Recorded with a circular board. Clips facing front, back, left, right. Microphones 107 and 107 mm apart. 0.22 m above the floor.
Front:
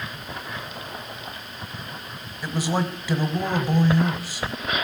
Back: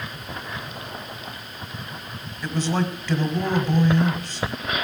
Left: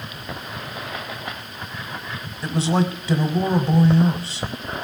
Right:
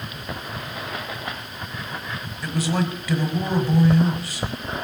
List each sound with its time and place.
2.4 s a man speaking: 70° left, 1.0 m